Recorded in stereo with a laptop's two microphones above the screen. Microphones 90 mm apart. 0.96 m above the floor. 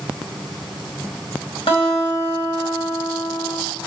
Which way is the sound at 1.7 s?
90° left.